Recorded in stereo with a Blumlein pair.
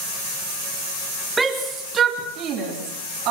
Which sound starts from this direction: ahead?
A shout, at 1.4 s.